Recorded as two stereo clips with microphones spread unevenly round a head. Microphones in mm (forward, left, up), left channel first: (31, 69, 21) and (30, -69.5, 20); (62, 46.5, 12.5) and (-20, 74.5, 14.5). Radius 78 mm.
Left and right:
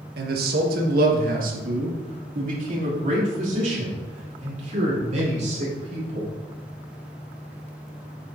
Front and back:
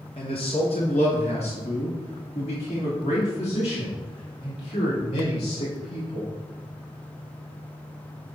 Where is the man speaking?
80° right, 1.4 m; by 6.3 s 50° right, 5 m.